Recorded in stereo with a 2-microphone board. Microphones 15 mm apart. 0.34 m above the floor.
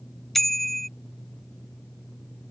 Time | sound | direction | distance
0.3 | a bicycle bell | 10° left (ahead or behind) | ?